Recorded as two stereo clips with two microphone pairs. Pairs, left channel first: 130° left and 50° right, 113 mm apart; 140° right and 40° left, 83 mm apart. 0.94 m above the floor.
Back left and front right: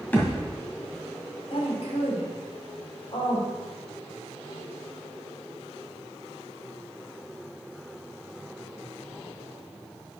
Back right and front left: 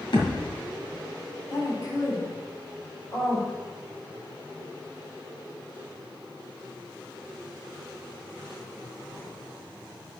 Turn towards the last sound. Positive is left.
turn(degrees=170)